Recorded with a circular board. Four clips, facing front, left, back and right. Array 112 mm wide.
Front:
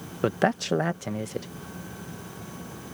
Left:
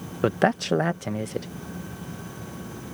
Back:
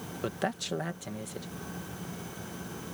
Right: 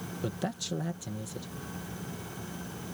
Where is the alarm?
No alarm in this recording.